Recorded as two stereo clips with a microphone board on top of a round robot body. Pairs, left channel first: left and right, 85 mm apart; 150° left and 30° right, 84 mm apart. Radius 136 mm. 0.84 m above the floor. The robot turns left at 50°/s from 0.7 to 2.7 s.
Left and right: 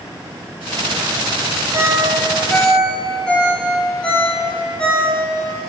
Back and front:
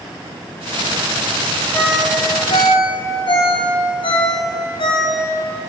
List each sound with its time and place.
1.7 s a ringtone: 145° right, 1.9 m; by 5.2 s 170° left, 1.9 m